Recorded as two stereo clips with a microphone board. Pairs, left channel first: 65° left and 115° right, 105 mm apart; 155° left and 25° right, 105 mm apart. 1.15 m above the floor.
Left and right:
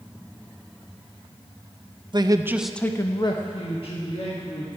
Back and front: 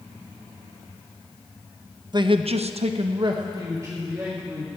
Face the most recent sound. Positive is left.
turn(degrees=50)